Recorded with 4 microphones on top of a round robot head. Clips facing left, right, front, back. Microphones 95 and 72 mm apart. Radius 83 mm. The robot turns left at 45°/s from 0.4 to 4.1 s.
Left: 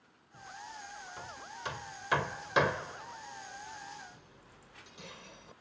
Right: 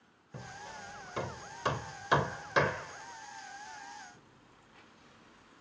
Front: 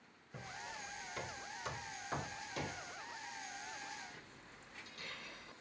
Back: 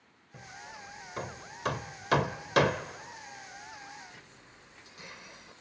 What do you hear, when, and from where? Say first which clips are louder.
0.3 s hammering: right 1 dB, back 2 dB; 85° right; by 5.5 s 110° left